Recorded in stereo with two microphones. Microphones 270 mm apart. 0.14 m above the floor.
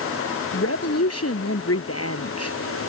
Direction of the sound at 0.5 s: 55° left (ahead or behind).